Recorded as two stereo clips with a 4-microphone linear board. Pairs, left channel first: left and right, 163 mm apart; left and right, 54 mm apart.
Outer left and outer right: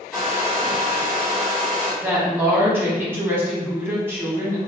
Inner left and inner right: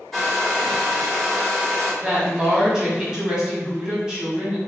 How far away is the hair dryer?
About 1.8 m.